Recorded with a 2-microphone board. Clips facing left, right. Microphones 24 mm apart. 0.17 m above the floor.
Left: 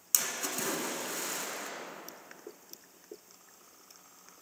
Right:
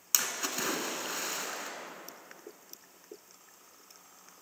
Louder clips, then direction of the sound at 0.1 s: Right 2 dB; 30° right (ahead or behind).